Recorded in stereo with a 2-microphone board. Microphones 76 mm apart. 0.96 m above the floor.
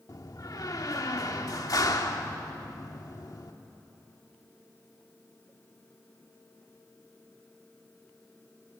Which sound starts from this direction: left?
A door slam, at 0.1 s.